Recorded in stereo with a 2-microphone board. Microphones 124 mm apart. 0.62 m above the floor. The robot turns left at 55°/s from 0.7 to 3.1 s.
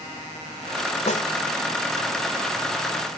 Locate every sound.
1.1 s a snare drum: 60° left (ahead or behind); by 1.3 s 65° left (ahead or behind)